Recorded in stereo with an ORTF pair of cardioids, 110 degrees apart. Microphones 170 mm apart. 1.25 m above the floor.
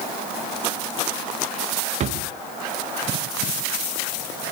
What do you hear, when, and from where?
2.0 s a drawer: 45° right, 0.9 m